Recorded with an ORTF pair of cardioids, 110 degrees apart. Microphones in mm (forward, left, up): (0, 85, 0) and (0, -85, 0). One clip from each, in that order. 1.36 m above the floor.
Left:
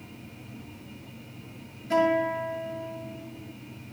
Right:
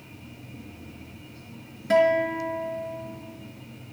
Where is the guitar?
70° right, 5 m.